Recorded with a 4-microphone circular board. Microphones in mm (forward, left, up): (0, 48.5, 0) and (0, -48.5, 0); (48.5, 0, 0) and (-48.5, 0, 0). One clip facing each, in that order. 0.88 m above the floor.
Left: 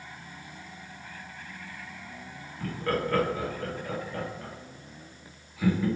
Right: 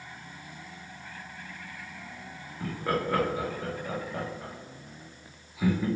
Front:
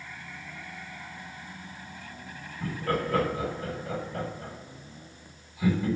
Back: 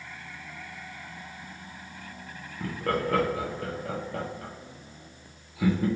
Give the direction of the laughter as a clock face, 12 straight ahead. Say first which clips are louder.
Even, back 1 dB; 6 o'clock.